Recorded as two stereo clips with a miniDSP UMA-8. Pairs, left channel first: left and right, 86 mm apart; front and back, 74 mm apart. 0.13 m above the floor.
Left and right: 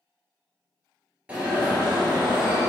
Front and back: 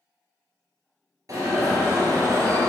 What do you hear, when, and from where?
1.3 s an alarm: 160° right, 3 m